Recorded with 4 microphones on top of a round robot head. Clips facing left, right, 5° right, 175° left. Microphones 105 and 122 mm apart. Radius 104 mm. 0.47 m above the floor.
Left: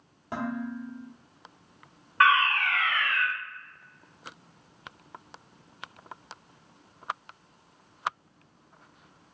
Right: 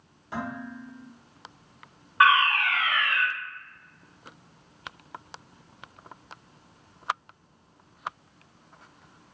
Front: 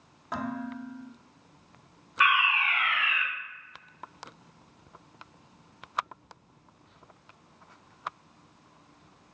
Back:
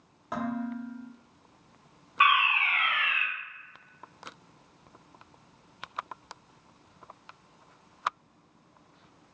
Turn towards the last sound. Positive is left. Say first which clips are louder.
# right 2 dB, back 1 dB
turn(degrees=-155)